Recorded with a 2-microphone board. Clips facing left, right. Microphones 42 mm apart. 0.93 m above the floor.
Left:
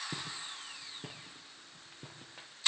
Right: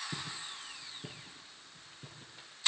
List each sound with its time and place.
0.1 s footsteps: 55° left (ahead or behind), 4.5 m; by 2.5 s 75° left (ahead or behind), 4 m